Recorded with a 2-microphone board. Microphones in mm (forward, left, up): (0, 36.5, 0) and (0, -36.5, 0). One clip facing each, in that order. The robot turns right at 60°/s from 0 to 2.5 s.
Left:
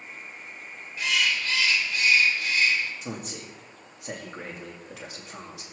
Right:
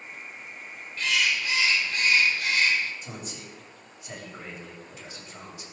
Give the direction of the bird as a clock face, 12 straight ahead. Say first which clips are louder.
Even; 6 o'clock.